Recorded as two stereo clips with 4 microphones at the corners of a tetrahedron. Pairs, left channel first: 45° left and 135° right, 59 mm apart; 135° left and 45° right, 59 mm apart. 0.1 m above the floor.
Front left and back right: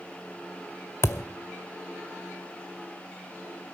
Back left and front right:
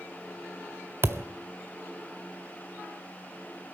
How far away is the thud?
About 0.6 m.